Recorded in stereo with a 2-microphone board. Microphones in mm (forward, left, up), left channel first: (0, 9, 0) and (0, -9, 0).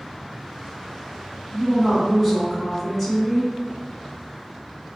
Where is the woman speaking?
Centre (ahead or behind), 2.0 m.